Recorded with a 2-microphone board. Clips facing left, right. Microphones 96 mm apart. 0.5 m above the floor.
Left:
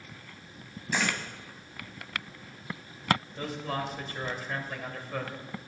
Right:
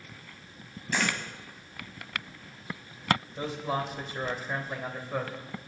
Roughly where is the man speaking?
Centre.